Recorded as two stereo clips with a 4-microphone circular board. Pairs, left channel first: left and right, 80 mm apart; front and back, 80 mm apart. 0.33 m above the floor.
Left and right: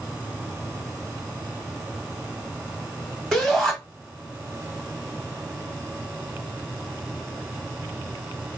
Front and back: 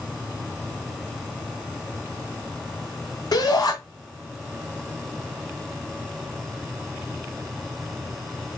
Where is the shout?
5° right, 1.5 m.